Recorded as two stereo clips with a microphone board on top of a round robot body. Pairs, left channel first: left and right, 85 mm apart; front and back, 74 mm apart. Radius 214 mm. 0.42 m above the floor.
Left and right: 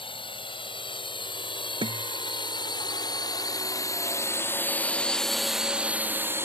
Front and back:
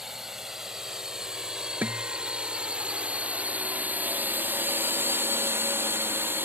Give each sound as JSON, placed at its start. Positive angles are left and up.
{"t": 0.0, "sound": "a drone", "azimuth_deg": 95}
{"t": 1.8, "sound": "a guitar", "azimuth_deg": -115}